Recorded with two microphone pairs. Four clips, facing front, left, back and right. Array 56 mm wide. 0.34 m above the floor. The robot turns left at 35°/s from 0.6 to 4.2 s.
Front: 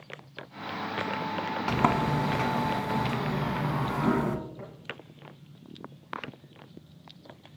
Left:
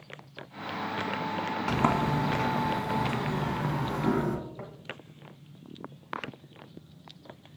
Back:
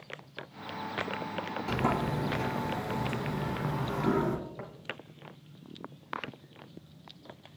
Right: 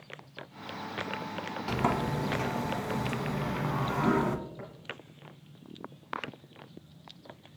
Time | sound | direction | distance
1.7 | a sliding door | 30° left | 0.6 m
4.6 | tapping | 165° left | 1.1 m